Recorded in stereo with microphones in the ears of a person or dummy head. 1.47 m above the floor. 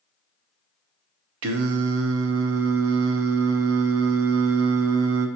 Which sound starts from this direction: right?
Singing, at 1.4 s.